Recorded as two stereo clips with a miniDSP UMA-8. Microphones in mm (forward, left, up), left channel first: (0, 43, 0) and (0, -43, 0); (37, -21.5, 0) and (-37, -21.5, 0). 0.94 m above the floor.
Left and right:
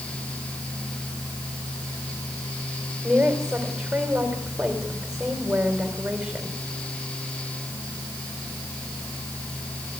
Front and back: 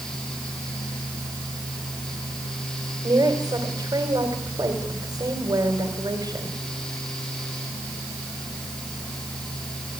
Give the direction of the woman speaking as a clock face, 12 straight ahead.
6 o'clock.